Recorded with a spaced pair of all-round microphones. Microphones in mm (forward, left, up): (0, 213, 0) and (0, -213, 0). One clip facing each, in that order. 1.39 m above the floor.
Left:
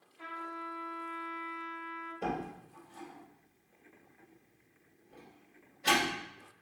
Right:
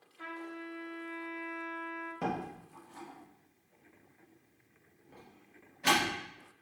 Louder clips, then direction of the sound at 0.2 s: Right 3 dB; 25° right (ahead or behind).